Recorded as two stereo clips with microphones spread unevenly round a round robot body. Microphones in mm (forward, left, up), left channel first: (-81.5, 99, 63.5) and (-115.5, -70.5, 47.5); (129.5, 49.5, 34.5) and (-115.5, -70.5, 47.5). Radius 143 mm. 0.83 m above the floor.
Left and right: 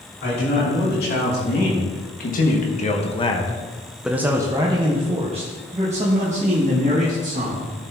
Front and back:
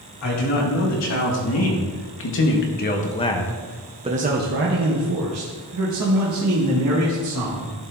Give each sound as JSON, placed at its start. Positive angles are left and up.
{"t": 0.2, "sound": "a man speaking", "azimuth_deg": 45, "distance_m": 3.0}